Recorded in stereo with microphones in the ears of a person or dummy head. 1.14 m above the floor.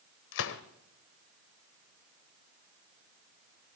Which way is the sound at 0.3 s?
60° left (ahead or behind).